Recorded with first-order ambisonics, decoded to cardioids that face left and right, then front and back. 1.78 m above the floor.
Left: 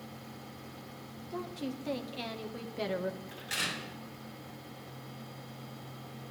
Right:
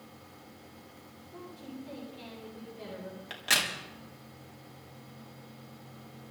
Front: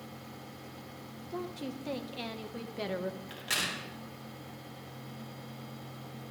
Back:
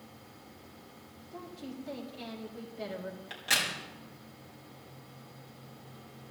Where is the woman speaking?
45° left, 2 m.